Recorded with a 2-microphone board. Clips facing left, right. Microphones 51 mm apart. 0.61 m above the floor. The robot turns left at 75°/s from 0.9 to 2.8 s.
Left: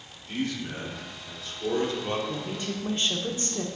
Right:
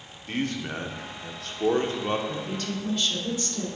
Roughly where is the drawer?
I don't hear a drawer.